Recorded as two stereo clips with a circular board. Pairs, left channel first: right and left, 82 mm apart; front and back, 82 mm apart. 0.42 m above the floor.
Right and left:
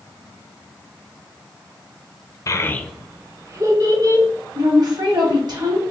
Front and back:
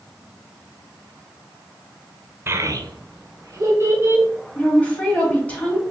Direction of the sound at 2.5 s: 125° right.